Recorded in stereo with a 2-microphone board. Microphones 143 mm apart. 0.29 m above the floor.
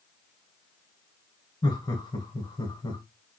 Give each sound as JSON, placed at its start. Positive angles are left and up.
{"t": 1.6, "sound": "laughter", "side_deg": 30, "distance_m": 1.4}